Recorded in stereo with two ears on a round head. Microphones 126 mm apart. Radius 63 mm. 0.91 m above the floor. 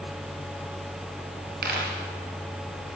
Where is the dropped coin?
75° right (ahead or behind), 7 m.